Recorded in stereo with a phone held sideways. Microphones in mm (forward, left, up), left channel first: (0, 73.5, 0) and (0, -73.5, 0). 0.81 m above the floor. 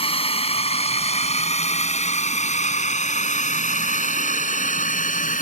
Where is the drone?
40° left (ahead or behind); by 5.4 s 60° left (ahead or behind).